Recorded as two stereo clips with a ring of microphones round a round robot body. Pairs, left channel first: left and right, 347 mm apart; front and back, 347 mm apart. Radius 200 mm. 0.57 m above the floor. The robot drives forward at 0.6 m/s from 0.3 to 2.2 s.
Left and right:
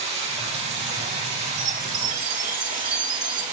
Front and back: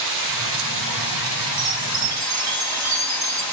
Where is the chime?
140° right, 3.5 m.